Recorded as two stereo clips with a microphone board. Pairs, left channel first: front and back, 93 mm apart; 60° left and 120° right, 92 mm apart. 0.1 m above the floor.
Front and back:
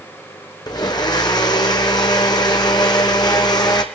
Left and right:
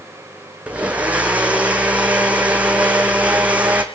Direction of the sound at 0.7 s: 45° right.